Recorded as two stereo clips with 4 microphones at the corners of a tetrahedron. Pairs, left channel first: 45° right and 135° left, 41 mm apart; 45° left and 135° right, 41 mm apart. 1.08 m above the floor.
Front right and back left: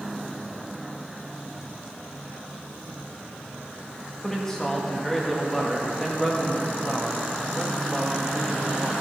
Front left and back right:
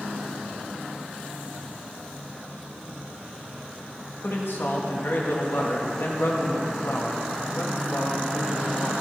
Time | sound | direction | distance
4.2 | a man speaking | 30° left | 1.7 m